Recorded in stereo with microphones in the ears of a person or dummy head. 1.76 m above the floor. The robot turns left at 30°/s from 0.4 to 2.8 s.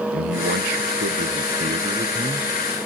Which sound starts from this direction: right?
A man speaking, at 0.1 s.